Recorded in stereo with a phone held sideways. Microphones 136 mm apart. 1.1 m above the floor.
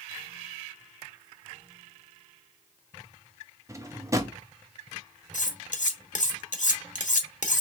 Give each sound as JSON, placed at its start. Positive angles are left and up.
{"t": 3.7, "sound": "a drawer", "side_deg": -20, "distance_m": 0.7}
{"t": 5.3, "sound": "cutlery clinking", "side_deg": 65, "distance_m": 1.0}